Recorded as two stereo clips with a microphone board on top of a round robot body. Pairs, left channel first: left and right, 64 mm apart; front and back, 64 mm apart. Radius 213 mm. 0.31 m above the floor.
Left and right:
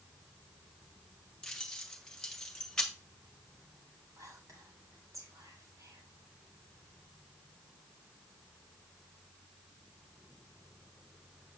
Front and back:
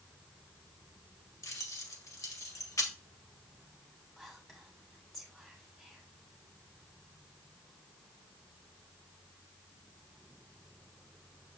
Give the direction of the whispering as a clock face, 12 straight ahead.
3 o'clock.